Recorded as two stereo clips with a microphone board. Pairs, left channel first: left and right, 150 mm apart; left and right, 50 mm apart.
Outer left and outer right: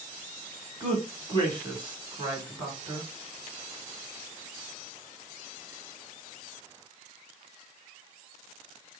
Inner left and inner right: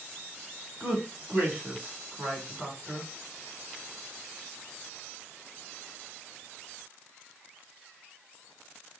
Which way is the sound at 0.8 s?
30° right (ahead or behind).